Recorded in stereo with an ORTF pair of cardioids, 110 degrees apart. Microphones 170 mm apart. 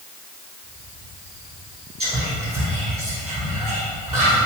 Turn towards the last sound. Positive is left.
turn(degrees=-20)